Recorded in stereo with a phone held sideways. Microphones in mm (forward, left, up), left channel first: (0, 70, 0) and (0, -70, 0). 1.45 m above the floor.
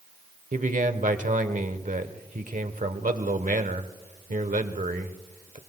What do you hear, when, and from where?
0.5 s a man speaking: 70° right (ahead or behind), 1.1 m